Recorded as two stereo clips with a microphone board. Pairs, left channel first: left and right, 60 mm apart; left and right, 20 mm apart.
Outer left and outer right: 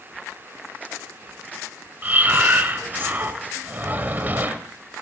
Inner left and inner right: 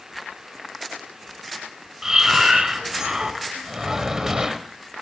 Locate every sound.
2.0 s breathing: 30° right (ahead or behind), 0.8 m